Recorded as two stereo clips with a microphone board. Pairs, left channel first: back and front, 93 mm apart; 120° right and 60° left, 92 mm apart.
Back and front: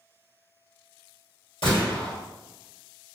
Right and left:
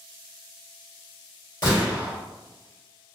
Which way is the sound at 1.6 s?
165° right.